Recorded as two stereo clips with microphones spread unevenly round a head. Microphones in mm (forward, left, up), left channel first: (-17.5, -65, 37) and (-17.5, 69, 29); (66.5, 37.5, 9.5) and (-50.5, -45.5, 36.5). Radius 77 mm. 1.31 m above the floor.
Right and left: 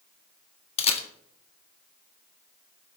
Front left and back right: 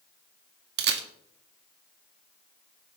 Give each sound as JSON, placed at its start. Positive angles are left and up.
{"t": 0.8, "sound": "a camera shutter", "azimuth_deg": -135, "distance_m": 1.8}